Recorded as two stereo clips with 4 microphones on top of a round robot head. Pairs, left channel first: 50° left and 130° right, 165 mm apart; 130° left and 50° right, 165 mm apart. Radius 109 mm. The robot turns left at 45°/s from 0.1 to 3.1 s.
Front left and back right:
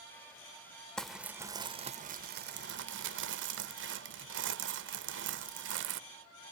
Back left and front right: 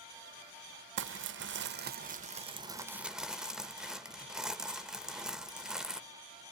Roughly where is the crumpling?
Ahead right.